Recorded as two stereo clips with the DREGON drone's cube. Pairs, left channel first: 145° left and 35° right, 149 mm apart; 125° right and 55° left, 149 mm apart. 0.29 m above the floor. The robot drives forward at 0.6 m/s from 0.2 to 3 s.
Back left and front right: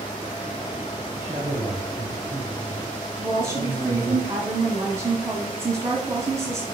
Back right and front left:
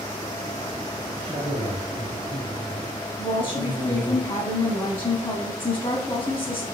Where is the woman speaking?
95° right, 1.3 m.